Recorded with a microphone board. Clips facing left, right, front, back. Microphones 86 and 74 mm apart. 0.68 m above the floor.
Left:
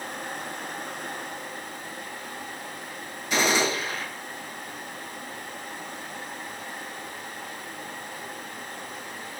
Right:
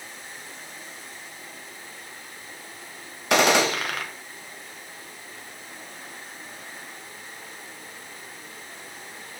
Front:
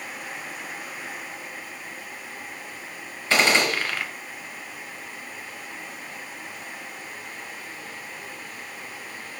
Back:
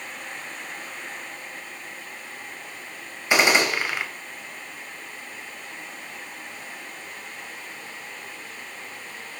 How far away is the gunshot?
About 1.7 m.